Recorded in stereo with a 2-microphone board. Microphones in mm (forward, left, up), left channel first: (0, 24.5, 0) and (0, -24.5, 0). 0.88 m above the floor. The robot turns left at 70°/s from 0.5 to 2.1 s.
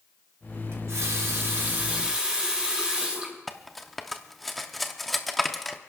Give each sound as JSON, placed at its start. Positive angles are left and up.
{"t": 0.7, "sound": "a running tap", "azimuth_deg": -65, "distance_m": 4.5}
{"t": 3.5, "sound": "cutlery clinking", "side_deg": 5, "distance_m": 0.7}